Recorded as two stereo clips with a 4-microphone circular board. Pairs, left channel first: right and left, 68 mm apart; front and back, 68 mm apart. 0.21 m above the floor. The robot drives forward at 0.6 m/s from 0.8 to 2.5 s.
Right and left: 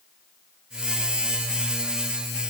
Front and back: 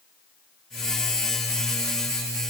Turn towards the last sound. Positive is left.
No sound to turn to.